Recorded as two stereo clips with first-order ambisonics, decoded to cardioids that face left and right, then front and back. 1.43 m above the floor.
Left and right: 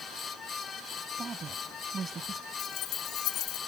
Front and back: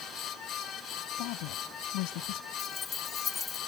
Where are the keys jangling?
65° left.